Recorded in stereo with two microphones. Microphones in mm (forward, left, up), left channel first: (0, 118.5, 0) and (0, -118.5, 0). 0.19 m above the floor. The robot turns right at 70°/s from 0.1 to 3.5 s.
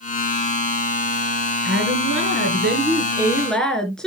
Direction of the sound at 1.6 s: 125° right.